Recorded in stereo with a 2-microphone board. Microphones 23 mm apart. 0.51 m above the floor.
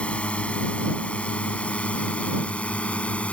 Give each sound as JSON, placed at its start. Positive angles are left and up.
{"t": 0.0, "sound": "a drone", "side_deg": 60}